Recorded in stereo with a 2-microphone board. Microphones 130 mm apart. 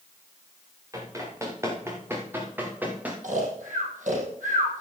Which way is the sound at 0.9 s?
25° right (ahead or behind).